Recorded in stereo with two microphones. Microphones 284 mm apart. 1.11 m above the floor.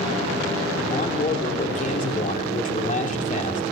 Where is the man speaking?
25° left (ahead or behind), 3 m.